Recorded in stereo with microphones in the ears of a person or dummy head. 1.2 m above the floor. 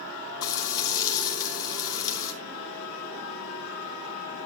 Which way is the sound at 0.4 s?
75° left (ahead or behind).